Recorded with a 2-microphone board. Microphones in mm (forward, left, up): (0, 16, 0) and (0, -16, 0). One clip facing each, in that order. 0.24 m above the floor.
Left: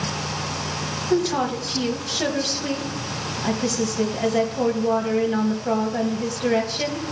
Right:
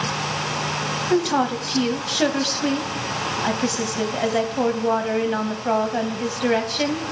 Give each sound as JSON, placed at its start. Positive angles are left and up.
{"t": 1.1, "sound": "a woman speaking", "side_deg": -20, "distance_m": 1.1}